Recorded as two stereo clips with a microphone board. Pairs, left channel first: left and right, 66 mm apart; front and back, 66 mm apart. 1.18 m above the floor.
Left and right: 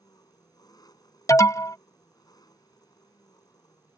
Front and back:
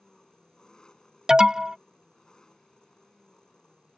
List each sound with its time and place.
0.0 s an engine running: 80° left
1.3 s an alarm: 105° left